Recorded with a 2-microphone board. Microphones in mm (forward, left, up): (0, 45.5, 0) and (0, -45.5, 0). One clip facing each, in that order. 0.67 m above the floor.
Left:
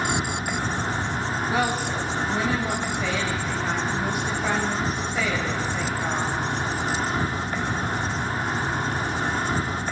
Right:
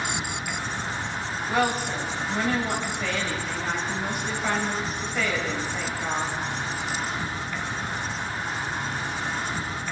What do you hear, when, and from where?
0.0 s an insect: 50° left (ahead or behind), 1.3 m
1.5 s a woman speaking: 5° left (ahead or behind), 4.5 m